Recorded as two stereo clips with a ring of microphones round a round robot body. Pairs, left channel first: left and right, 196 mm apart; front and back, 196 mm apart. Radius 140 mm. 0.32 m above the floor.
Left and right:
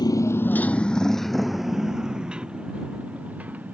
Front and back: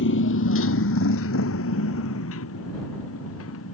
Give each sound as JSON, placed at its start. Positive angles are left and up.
{"t": 0.0, "sound": "a motorcycle", "azimuth_deg": 20}